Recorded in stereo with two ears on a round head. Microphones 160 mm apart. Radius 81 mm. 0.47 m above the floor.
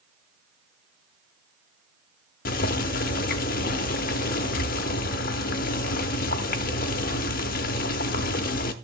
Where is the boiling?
55° left (ahead or behind), 0.8 m.